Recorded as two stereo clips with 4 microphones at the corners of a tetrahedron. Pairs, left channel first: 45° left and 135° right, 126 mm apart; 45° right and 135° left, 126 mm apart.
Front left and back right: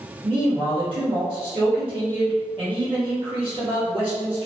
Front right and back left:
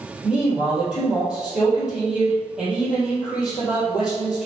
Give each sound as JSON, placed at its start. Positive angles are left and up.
{"t": 0.2, "sound": "a man speaking", "azimuth_deg": -145, "distance_m": 1.9}